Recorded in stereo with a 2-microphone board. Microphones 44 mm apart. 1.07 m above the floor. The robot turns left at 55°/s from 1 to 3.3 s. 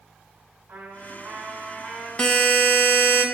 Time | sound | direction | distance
0.7 | a trumpet | 125° right | 2.5 m
2.2 | a buzzer | 155° left | 1.3 m